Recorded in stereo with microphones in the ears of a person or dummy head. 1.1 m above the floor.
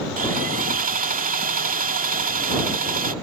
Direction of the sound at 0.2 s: 50° right (ahead or behind).